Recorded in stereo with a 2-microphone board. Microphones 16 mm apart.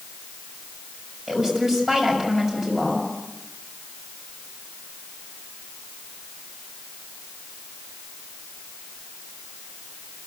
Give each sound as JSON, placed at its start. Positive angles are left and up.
{"t": 1.3, "sound": "a woman speaking", "side_deg": -30, "distance_m": 6.5}